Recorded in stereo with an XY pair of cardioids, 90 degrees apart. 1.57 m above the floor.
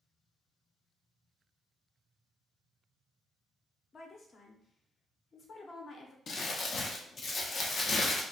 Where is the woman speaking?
50° left, 0.9 m.